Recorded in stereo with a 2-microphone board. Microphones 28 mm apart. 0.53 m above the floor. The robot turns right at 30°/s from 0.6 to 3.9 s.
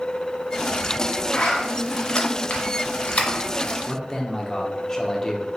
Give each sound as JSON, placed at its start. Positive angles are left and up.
{"t": 1.3, "sound": "a zipper", "side_deg": 30, "distance_m": 1.0}
{"t": 3.9, "sound": "a man speaking", "side_deg": 15, "distance_m": 0.8}